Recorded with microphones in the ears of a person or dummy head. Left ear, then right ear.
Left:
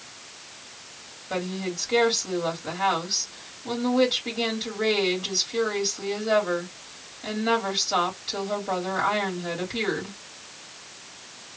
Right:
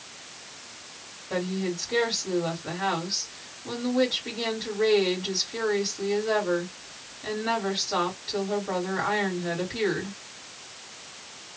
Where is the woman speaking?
20° left (ahead or behind), 2 m.